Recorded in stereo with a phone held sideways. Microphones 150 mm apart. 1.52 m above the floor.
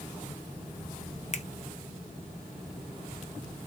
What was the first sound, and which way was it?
A finger snap, 50° left (ahead or behind).